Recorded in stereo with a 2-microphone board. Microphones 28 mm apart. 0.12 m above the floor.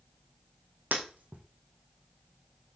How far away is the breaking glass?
About 2.5 m.